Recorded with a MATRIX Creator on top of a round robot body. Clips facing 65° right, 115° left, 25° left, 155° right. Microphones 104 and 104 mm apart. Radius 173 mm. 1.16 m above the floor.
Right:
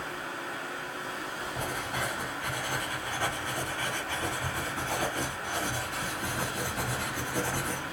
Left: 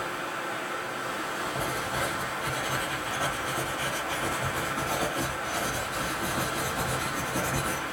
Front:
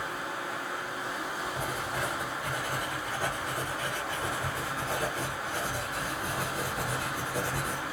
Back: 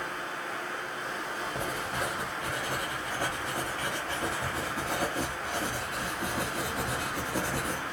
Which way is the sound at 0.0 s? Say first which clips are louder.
Left 4 dB, front 1 dB; 100° left.